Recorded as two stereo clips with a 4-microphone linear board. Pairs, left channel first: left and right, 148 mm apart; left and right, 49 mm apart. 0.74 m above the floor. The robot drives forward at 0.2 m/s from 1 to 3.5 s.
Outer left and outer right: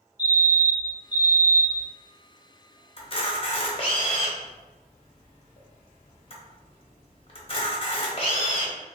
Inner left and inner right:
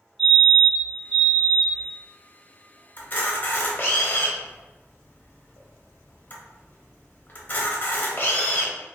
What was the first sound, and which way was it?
A fire alarm, 15° right (ahead or behind).